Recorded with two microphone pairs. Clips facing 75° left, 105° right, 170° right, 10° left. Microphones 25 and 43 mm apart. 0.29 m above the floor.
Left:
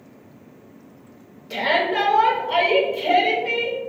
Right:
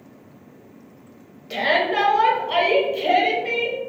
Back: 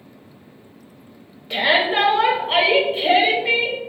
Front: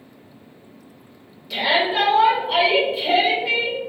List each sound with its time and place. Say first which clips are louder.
1.5 s a shout: right 1 dB, back 2 dB; 155° right, 1.0 m